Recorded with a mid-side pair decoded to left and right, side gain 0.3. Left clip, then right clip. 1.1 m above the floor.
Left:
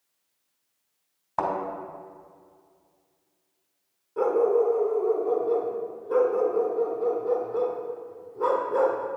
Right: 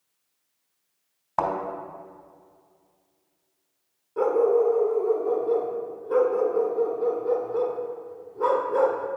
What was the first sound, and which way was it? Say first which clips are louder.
A thud: right 2 dB; 30° right.